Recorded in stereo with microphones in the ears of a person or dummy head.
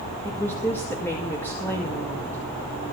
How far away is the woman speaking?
About 2.0 m.